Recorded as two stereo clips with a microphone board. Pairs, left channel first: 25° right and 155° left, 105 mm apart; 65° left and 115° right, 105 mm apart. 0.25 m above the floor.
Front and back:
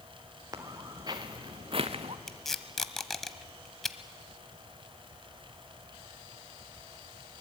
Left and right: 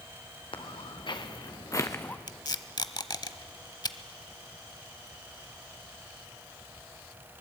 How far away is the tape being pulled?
About 0.9 m.